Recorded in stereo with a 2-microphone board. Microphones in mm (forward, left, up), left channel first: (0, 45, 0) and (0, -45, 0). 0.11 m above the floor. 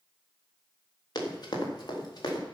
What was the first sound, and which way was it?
Running footsteps, 45° left (ahead or behind).